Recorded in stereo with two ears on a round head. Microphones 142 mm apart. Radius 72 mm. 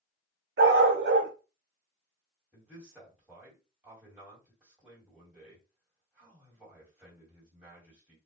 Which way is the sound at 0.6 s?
70° right (ahead or behind).